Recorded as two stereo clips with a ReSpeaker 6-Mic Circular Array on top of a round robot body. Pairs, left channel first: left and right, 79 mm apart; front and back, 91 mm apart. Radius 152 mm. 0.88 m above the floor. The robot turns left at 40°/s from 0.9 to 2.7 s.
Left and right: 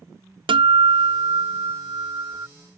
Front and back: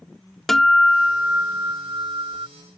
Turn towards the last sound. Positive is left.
turn(degrees=-155)